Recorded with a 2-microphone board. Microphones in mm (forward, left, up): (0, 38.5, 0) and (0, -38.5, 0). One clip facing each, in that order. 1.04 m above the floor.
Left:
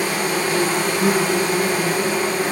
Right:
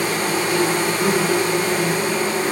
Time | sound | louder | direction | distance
0.0 | an insect | even | 35° left (ahead or behind) | 1.0 m